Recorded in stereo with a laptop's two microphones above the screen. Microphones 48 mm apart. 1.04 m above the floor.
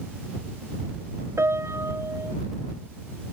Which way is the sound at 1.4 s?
85° right.